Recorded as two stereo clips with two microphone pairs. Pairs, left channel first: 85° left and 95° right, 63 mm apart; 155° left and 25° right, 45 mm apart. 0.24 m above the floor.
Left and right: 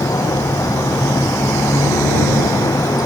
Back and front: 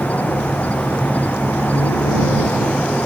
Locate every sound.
0.0 s an insect: 105° left